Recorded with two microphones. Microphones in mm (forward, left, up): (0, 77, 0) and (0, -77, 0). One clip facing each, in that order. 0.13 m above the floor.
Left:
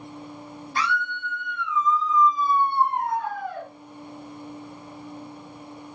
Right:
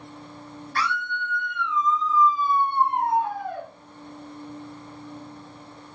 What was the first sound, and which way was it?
A scream, 15° left (ahead or behind).